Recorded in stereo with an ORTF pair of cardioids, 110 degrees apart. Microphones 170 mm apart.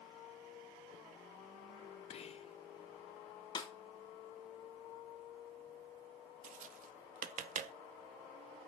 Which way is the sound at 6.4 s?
50° right.